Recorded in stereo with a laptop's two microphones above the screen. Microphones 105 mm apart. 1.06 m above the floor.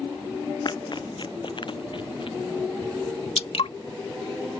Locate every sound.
0.7 s running footsteps: 45° left (ahead or behind); by 2.4 s 55° left (ahead or behind)
3.4 s dripping: 75° left (ahead or behind)